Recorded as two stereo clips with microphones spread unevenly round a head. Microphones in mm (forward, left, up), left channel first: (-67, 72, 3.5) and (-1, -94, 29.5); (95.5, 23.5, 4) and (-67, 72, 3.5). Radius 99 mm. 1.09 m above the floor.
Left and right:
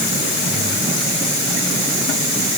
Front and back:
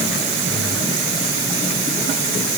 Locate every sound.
Only background noise.